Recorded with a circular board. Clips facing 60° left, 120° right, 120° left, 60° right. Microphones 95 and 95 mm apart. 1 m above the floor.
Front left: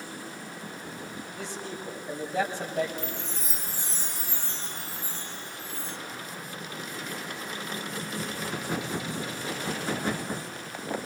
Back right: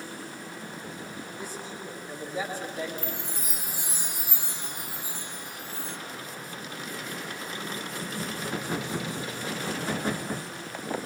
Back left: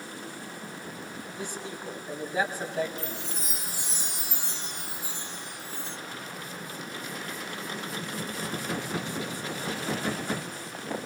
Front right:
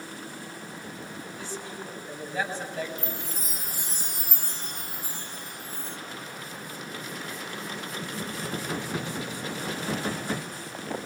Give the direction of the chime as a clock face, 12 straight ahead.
2 o'clock.